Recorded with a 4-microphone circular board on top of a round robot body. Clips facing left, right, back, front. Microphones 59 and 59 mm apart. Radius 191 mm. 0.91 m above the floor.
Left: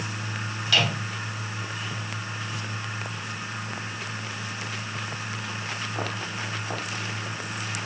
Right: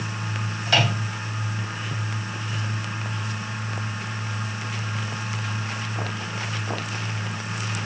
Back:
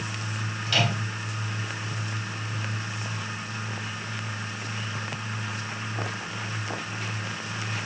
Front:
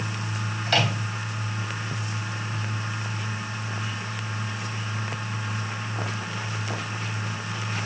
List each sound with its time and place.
0.7 s a microwave: 35° right, 3.5 m